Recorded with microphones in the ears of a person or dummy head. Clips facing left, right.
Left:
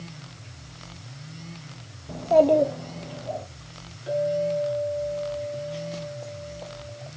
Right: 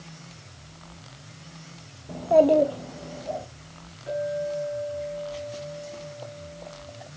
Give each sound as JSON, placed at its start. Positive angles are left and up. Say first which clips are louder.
{"t": 2.1, "sound": "a child speaking", "louder": "even", "side_deg": 0, "distance_m": 0.7}
{"t": 4.1, "sound": "a clink", "louder": "left 4 dB", "side_deg": 30, "distance_m": 8.0}